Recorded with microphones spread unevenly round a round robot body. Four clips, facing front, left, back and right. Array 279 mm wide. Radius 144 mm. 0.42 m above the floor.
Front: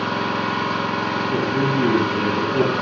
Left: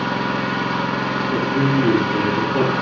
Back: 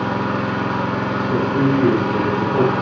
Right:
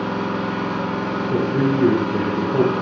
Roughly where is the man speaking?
Behind right.